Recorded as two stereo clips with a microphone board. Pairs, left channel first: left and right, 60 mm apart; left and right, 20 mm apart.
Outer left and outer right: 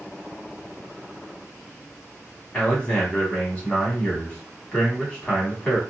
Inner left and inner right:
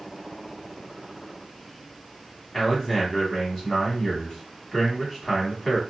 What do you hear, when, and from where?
2.5 s a man speaking: 20° left (ahead or behind), 1.2 m